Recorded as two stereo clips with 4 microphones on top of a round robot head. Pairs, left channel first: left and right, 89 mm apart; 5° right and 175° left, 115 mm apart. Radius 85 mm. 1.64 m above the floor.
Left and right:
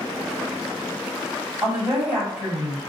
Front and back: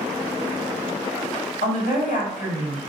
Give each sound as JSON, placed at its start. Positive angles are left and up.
{"t": 1.6, "sound": "a woman speaking", "azimuth_deg": -5, "distance_m": 2.0}